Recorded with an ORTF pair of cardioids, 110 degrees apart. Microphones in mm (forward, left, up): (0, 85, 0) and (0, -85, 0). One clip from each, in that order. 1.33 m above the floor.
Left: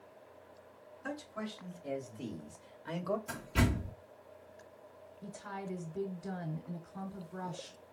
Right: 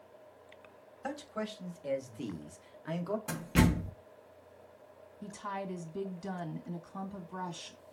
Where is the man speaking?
60° right, 1.6 m; by 3.2 s 5° left, 0.8 m.